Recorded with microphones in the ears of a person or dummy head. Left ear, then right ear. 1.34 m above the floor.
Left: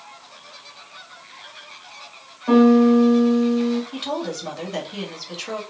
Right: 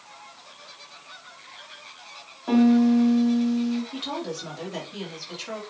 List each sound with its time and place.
2.5 s a piano: 5° right (ahead or behind), 0.9 m
3.9 s a woman speaking: 15° left (ahead or behind), 2 m